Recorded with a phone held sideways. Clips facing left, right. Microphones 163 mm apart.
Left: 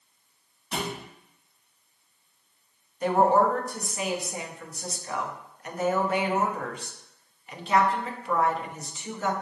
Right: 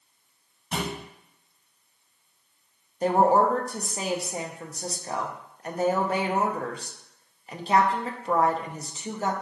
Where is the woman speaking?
35° right (ahead or behind), 0.6 m.